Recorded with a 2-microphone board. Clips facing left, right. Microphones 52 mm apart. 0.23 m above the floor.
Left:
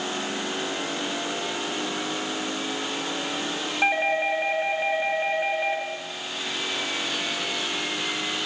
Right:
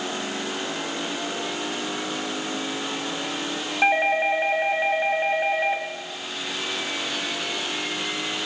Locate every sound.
3.8 s a doorbell: 15° right (ahead or behind), 1.4 m